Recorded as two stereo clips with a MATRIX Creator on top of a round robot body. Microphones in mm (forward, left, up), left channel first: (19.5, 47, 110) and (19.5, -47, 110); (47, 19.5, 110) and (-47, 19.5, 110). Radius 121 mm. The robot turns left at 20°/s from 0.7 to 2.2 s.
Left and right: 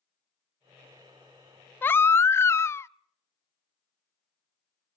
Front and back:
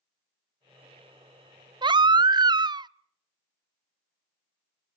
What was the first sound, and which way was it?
A baby crying, 155° left.